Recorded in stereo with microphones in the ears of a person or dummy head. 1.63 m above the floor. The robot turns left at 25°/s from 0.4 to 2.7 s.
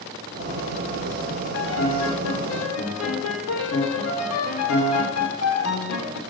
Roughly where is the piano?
Left.